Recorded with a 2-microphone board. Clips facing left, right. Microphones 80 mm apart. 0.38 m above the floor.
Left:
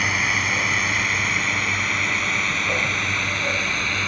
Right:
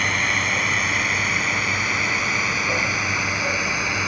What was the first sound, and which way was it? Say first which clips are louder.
A drone: even; 5° left (ahead or behind).